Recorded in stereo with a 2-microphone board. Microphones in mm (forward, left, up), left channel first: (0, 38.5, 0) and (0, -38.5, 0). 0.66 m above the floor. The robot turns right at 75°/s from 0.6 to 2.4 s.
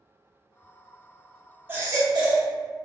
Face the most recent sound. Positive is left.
turn(degrees=-100)